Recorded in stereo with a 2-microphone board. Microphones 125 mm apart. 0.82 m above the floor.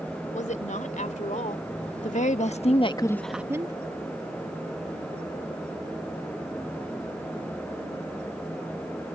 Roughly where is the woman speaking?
Left.